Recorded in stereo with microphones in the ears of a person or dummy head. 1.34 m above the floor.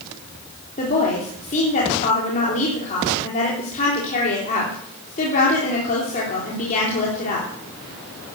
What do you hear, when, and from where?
0.8 s a woman speaking: 40° left (ahead or behind), 3.5 m